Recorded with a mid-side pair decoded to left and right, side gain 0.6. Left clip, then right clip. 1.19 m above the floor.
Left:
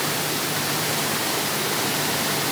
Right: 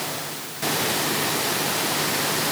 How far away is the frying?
No frying in this recording.